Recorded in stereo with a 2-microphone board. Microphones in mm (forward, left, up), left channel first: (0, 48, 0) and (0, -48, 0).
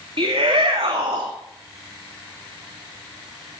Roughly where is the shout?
Right.